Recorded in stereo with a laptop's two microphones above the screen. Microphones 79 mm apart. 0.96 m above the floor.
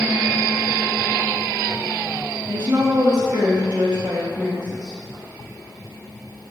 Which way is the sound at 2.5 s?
65° right (ahead or behind).